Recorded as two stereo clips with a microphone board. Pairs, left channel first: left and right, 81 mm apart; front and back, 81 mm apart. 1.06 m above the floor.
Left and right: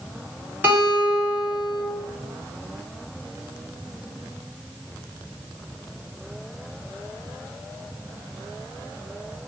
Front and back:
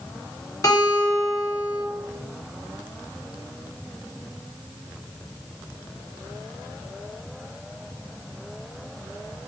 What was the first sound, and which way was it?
A guitar, 30° right.